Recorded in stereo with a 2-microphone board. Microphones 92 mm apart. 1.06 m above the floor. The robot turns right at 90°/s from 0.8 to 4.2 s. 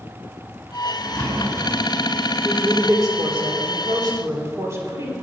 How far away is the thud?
About 6.5 m.